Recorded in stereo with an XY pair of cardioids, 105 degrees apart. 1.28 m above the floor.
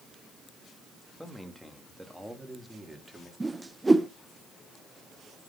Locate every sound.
1.2 s a man speaking: 5° left, 2.5 m; by 3.3 s 15° right, 3.5 m
3.4 s a whoosh: 15° right, 0.7 m